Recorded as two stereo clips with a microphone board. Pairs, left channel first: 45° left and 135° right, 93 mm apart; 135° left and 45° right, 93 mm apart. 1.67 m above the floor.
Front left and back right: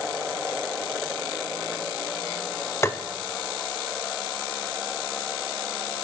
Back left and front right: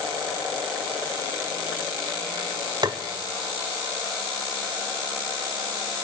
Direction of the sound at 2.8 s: 10° right.